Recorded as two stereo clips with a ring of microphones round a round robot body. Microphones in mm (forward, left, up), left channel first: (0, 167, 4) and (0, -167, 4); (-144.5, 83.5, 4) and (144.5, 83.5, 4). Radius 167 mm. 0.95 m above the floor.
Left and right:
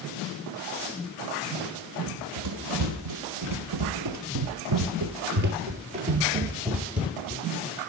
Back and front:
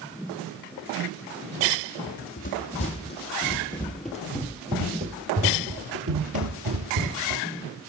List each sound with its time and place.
2.1 s running footsteps: 120° right, 2.0 m; by 7.5 s straight ahead, 1.7 m